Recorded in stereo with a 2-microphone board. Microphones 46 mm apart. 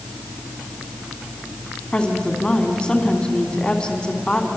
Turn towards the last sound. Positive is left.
turn(degrees=20)  # may be behind; listen again after turning